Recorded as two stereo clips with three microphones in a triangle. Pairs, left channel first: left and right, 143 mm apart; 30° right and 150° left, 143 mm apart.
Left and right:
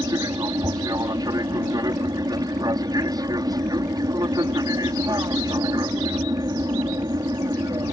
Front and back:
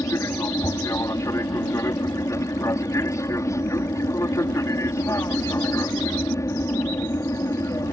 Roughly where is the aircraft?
Right.